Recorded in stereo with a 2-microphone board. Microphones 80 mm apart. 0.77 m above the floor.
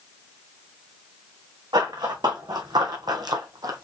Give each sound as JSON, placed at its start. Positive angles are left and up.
{"t": 1.7, "sound": "running footsteps", "side_deg": -60, "distance_m": 2.0}